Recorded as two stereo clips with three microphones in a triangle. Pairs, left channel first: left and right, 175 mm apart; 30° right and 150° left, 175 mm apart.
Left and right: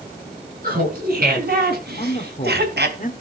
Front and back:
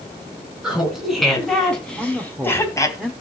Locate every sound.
0.6 s laughter: 125° right, 6 m; by 3.0 s 100° right, 3 m
2.0 s a man speaking: 70° left, 1.6 m